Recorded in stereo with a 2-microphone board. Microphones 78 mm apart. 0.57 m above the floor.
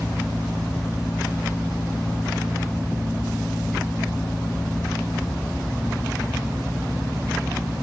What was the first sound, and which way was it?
Only background noise.